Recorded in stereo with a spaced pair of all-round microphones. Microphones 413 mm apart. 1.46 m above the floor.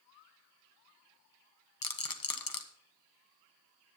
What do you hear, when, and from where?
1.8 s a rattle: 55° left (ahead or behind), 0.9 m